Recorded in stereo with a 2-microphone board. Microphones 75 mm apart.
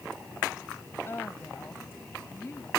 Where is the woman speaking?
25° left (ahead or behind).